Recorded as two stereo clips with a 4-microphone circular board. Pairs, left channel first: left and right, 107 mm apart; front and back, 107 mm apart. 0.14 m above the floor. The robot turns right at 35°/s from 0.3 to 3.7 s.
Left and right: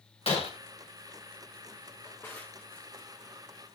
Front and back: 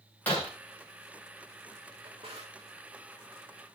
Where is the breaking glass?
75° left, 7.5 m; by 0.5 s 80° left, 7.5 m.